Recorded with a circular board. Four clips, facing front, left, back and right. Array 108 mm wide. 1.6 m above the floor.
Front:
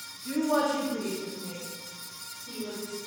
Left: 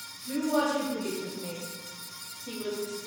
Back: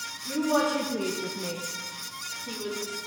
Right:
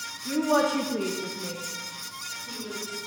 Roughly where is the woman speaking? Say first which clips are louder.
Right 4 dB, back 1 dB; right.